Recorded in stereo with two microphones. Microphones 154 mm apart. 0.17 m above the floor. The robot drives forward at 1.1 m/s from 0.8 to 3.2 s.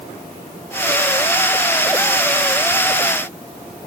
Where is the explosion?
No explosion in this recording.